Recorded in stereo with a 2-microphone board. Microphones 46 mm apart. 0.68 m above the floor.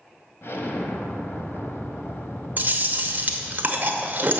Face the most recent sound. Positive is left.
turn(degrees=-40)  # may be behind; listen again after turning